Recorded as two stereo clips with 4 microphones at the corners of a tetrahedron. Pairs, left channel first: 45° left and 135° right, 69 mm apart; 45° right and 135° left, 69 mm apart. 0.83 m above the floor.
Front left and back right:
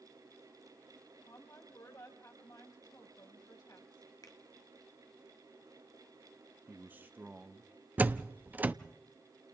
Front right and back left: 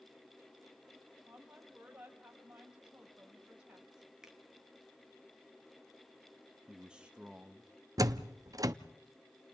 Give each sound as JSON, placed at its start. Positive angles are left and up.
{"t": 1.2, "sound": "a woman speaking", "azimuth_deg": 60, "distance_m": 4.5}
{"t": 4.2, "sound": "a finger snap", "azimuth_deg": 55, "distance_m": 1.6}
{"t": 6.7, "sound": "a man speaking", "azimuth_deg": -165, "distance_m": 0.6}
{"t": 8.0, "sound": "a door slam", "azimuth_deg": 160, "distance_m": 0.6}